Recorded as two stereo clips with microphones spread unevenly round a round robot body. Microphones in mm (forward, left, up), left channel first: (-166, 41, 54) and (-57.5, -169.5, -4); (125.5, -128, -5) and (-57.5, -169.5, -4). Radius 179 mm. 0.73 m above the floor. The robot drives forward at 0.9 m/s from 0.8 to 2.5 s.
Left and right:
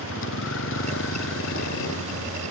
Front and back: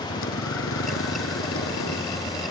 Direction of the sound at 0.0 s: 60° left.